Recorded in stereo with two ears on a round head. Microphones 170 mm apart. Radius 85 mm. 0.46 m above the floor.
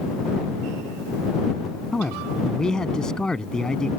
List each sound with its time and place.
1.9 s a man speaking: 5° left (ahead or behind)